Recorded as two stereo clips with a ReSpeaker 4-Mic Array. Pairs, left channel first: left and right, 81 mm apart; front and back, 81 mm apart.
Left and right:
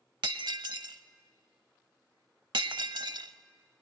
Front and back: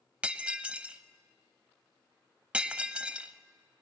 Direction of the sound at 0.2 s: 105° right.